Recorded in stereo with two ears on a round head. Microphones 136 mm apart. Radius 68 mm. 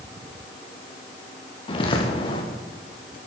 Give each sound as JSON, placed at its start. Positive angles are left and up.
{"t": 1.7, "sound": "footsteps", "side_deg": 35, "distance_m": 3.5}